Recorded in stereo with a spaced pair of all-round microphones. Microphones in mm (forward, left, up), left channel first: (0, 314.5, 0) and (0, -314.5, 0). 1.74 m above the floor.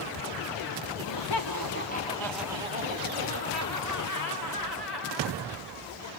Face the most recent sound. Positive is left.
turn(degrees=-40)  # may be behind; listen again after turning